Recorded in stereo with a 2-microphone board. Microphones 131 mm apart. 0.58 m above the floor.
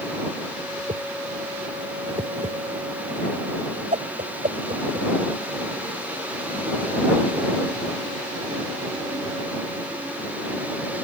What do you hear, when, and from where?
0.8 s a whoosh: 60° right (ahead or behind)